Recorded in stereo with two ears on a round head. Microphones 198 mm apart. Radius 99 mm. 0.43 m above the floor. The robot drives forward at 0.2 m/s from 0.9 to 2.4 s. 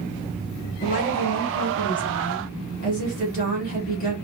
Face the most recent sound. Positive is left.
turn(degrees=40)  # may be behind; listen again after turning